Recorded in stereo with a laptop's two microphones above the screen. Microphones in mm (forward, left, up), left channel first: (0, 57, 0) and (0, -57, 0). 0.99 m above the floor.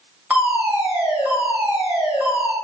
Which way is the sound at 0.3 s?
10° right (ahead or behind).